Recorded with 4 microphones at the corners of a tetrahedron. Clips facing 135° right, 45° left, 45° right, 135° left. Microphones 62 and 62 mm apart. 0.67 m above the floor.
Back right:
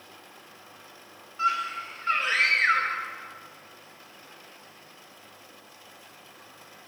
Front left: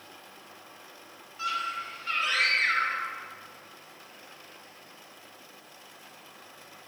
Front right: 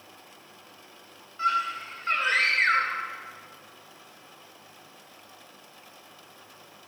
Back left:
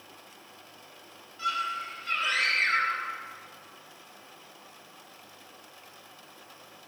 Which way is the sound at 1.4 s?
85° right.